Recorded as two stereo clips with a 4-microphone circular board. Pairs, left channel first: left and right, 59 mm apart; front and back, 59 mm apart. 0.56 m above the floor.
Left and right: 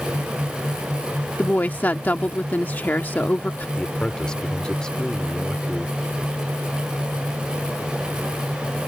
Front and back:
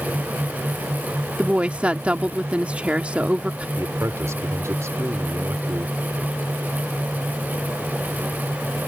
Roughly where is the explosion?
I don't hear an explosion.